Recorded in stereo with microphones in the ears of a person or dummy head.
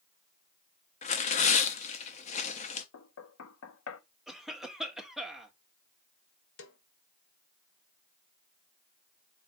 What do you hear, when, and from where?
1.0 s tearing paper: 30° left (ahead or behind), 0.6 m
2.9 s knocking: 80° left, 0.7 m
4.3 s a cough: centre (ahead or behind), 1.1 m
6.6 s a snare drum: 65° left (ahead or behind), 0.9 m